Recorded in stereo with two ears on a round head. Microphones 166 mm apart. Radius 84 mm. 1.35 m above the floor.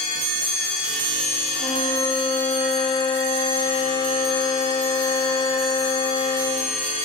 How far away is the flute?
About 3 m.